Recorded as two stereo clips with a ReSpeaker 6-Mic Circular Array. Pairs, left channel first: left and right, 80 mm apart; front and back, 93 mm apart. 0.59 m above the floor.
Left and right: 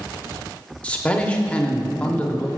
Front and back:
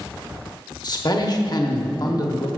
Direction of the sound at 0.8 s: 20° left.